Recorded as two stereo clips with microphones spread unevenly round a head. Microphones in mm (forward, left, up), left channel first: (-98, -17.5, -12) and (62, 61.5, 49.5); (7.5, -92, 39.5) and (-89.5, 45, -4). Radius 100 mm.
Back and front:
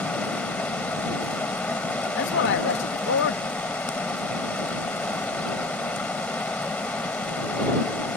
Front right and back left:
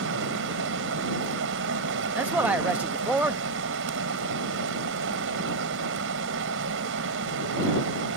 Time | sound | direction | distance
0.0 | running water | 120° left | ?
2.1 | a man speaking | 155° right | ?